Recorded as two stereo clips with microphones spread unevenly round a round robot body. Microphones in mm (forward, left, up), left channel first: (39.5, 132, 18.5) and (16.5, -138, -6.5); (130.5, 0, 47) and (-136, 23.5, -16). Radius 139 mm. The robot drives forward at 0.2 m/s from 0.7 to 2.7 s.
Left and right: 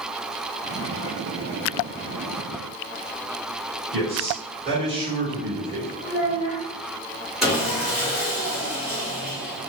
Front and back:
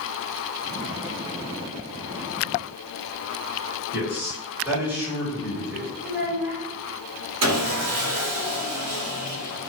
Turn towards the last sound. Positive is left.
turn(degrees=180)